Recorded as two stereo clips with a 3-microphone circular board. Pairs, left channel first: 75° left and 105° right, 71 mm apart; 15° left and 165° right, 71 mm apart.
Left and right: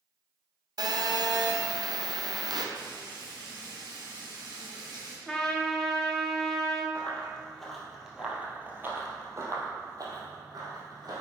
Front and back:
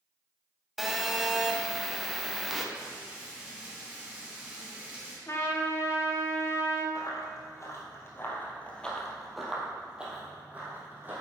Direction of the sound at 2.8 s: 90° right.